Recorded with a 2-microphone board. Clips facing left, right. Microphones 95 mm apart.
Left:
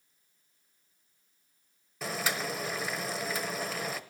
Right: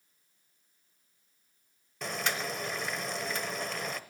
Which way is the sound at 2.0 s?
5° left (ahead or behind).